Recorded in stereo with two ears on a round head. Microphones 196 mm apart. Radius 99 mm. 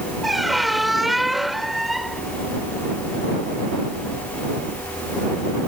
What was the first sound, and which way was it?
A squeak, centre (ahead or behind).